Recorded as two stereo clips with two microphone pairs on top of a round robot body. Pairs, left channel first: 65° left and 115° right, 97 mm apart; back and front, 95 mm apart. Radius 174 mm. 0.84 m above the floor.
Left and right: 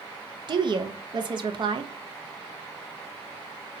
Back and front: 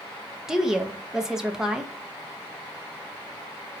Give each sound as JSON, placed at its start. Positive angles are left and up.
{"t": 0.5, "sound": "a woman speaking", "azimuth_deg": -80, "distance_m": 0.6}